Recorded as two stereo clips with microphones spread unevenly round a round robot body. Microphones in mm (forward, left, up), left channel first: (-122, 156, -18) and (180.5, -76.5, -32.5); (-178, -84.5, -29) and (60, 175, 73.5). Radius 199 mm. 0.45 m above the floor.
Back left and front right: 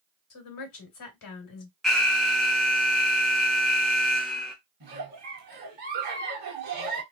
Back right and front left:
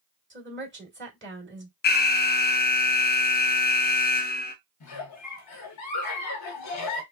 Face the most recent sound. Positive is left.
turn(degrees=-105)